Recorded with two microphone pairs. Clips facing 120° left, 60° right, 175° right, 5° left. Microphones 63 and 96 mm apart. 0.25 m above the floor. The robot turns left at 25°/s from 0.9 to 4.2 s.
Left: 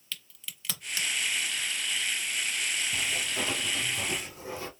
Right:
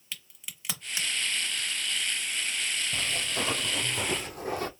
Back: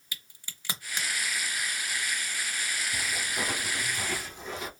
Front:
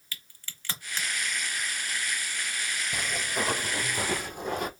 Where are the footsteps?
10° left, 1.6 m; by 4.7 s 25° right, 0.6 m.